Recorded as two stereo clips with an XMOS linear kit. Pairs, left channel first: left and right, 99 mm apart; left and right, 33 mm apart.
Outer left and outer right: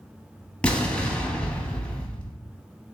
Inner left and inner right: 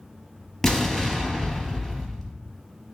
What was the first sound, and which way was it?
An explosion, 10° left (ahead or behind).